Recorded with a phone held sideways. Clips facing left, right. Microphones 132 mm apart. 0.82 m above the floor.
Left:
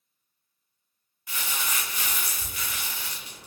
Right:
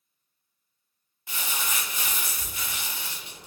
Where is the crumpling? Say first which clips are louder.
Even; 25° right (ahead or behind), 0.9 m.